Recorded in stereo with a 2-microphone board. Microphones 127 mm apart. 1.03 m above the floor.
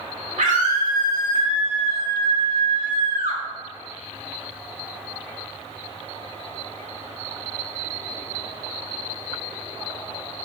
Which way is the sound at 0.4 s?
80° right.